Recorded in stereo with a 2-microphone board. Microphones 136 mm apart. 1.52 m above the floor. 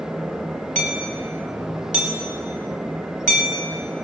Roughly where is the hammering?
Right.